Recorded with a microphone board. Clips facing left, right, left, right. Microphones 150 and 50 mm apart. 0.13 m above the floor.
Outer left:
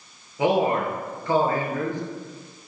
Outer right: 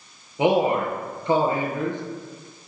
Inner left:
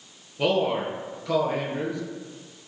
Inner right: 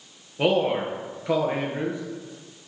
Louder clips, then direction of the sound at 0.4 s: Outer right 1 dB, inner right 1 dB; 20° right (ahead or behind).